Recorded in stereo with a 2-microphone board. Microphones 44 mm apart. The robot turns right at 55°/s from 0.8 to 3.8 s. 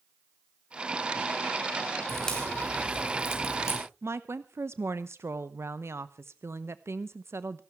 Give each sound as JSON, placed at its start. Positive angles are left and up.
{"t": 2.1, "sound": "a crack", "side_deg": 0, "distance_m": 4.5}
{"t": 4.0, "sound": "a woman speaking", "side_deg": -80, "distance_m": 0.8}